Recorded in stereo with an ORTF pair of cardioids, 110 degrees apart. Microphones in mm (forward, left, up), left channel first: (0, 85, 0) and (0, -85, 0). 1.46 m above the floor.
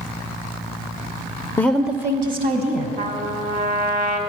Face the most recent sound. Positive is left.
turn(degrees=-45)